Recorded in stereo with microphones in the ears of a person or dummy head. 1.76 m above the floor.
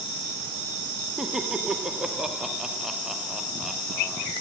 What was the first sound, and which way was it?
Laughter, centre (ahead or behind).